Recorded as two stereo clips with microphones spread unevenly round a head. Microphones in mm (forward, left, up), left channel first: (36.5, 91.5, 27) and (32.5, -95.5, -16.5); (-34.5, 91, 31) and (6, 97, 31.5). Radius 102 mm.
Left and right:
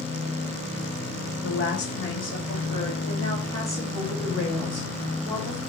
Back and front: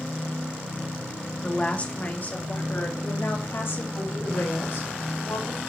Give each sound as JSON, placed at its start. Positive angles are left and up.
{"t": 1.4, "sound": "a woman speaking", "azimuth_deg": 125, "distance_m": 1.9}